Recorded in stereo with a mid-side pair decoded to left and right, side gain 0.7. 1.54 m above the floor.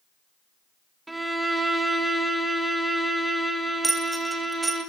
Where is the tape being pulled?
I don't hear tape being pulled.